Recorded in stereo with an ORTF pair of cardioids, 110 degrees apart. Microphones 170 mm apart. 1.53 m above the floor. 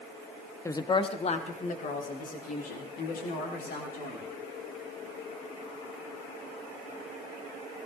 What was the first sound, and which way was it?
A woman speaking, 15° left.